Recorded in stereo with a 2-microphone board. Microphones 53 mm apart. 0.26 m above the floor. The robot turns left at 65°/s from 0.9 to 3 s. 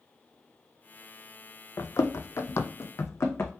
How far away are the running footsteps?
About 0.7 m.